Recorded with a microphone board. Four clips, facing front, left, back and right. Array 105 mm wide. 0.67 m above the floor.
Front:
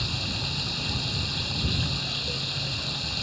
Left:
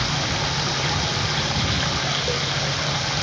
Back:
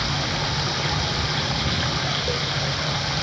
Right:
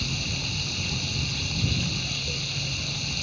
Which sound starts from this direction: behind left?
Running water, at 0.0 s.